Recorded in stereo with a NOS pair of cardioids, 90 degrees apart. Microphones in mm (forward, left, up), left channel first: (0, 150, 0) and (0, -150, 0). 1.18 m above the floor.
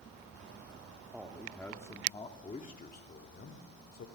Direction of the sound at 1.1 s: 5° right.